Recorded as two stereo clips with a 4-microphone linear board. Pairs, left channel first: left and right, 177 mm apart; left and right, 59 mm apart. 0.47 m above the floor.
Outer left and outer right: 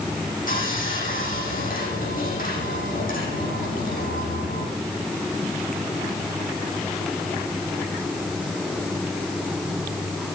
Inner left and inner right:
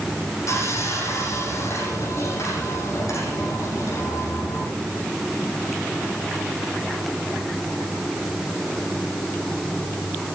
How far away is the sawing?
About 9 m.